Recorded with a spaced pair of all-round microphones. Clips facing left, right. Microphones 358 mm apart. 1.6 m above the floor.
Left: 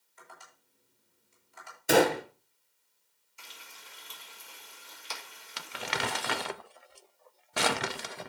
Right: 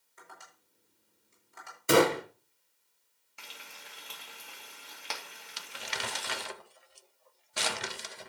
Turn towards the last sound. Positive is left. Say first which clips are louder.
# left 7 dB
turn(degrees=70)  # may be behind; listen again after turning